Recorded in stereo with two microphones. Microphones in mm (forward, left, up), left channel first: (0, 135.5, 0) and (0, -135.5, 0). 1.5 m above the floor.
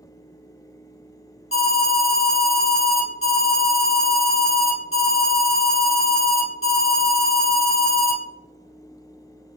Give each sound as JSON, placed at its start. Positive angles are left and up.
{"t": 1.5, "sound": "an alarm", "side_deg": 50, "distance_m": 1.5}